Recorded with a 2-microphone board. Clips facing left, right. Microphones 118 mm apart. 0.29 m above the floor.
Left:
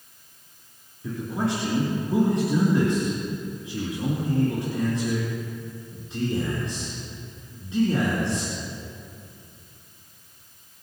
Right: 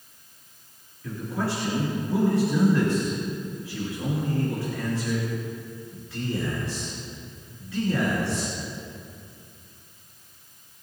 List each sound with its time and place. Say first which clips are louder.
1.0 s a man speaking: left 2 dB; 20° left (ahead or behind), 4 m